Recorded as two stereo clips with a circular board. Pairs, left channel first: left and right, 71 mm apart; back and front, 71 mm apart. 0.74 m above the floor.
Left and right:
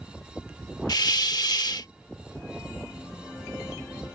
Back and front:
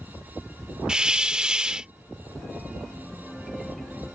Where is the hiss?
80° left.